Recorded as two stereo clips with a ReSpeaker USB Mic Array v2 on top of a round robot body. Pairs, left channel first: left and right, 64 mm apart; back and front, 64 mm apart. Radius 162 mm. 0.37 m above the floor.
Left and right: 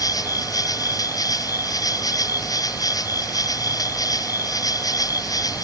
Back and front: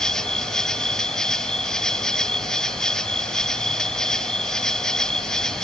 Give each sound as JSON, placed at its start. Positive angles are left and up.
{"t": 0.0, "sound": "an insect", "azimuth_deg": 100}